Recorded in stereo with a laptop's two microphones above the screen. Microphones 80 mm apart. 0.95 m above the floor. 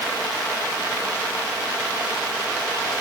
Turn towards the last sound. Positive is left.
No sound to turn to.